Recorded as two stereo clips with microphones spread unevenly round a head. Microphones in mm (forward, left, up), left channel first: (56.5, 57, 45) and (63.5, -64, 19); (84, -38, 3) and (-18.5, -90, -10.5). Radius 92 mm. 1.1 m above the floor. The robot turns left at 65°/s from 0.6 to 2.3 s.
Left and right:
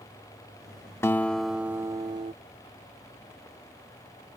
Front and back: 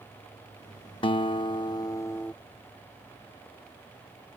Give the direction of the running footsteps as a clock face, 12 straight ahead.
I don't hear running footsteps.